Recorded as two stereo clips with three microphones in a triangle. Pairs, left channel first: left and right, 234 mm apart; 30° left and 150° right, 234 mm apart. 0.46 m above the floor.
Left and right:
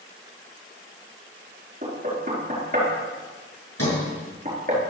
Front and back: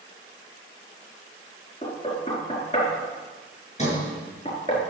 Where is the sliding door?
90° left, 7 m.